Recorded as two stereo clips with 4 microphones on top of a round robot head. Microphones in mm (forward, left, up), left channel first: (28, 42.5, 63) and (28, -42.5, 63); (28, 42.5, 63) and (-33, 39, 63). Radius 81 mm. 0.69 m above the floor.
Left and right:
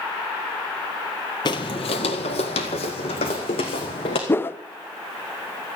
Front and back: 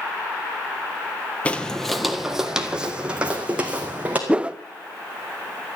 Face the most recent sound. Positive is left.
turn(degrees=125)